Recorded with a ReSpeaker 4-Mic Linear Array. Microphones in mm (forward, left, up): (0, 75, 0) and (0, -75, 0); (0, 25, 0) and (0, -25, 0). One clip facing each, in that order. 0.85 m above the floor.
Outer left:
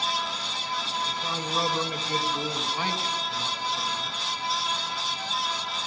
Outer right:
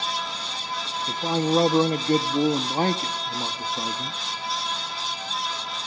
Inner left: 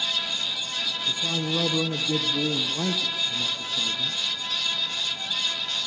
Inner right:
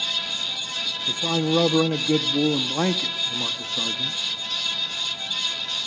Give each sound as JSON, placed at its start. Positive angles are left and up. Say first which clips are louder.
{"t": 1.1, "sound": "a man speaking", "louder": "outer right 9 dB, inner right 7 dB", "side_deg": -50, "distance_m": 0.9}